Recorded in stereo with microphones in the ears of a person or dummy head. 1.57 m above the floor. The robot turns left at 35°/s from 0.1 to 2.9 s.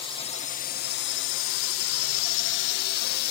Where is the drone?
155° left; by 3.3 s 55° left.